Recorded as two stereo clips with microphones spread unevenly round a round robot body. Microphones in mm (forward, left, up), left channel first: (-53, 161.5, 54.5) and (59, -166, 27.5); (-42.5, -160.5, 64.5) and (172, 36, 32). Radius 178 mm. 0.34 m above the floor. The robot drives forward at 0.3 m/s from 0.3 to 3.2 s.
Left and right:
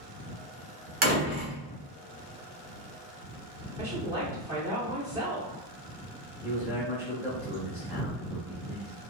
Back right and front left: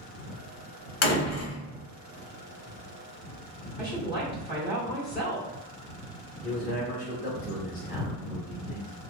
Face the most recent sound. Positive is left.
turn(degrees=-125)